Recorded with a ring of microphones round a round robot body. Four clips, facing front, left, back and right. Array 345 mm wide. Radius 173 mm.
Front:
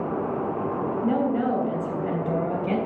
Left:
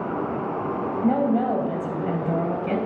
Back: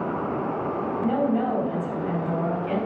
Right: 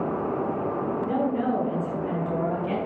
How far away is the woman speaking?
About 3 m.